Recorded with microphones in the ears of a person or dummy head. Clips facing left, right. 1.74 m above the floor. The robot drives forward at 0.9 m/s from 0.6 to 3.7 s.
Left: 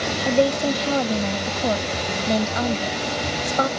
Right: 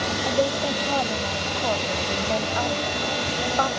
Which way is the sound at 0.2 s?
40° left (ahead or behind).